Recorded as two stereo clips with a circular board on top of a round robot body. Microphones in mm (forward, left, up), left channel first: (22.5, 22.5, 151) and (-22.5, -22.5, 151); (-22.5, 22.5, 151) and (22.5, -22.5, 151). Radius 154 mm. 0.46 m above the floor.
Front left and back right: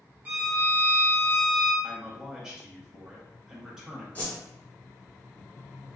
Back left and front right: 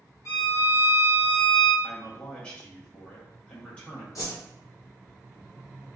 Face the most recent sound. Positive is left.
turn(degrees=105)